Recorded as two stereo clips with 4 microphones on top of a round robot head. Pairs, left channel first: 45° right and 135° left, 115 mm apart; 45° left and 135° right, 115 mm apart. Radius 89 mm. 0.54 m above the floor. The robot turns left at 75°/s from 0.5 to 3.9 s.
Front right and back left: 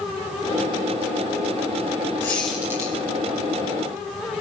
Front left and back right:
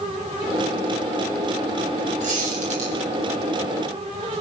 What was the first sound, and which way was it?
A squeak, 115° right.